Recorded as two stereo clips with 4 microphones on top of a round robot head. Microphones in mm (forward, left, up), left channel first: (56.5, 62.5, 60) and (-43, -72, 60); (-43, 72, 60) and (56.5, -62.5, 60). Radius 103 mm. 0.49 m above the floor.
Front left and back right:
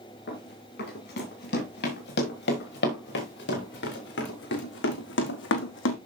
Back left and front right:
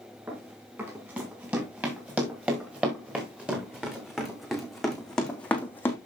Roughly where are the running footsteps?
Ahead left.